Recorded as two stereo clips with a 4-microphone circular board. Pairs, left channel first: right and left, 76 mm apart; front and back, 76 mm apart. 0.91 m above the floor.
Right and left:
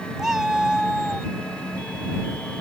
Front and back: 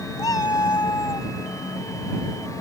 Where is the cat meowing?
10° left.